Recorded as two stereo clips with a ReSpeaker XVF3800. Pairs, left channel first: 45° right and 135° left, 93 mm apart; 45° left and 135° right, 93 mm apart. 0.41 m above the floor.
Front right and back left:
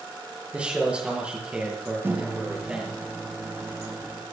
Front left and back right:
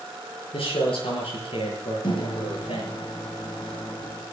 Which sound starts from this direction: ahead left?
A man speaking, at 0.5 s.